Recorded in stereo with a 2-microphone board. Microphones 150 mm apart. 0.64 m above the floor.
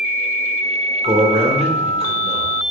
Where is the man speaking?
45° right (ahead or behind), 2 m.